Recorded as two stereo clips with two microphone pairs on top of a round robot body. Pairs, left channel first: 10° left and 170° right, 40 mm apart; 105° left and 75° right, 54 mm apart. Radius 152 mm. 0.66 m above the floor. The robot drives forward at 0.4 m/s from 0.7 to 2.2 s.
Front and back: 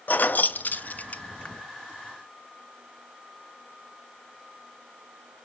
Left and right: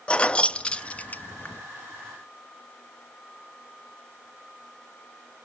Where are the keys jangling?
35° left, 0.8 m; by 1.6 s 70° left, 0.6 m.